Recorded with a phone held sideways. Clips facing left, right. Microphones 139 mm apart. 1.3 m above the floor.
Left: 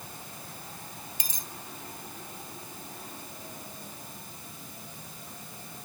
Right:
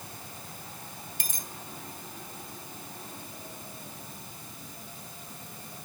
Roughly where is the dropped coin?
Right.